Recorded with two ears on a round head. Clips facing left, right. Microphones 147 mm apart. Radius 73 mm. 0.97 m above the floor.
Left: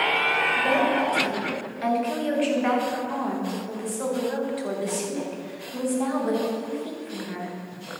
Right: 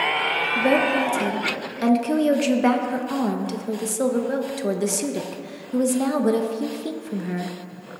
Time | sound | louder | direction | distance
0.6 | a woman speaking | right 4 dB | 55° right (ahead or behind) | 0.9 m